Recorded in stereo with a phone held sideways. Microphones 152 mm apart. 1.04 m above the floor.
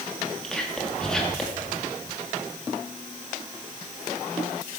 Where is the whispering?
5° left (ahead or behind), 2 m.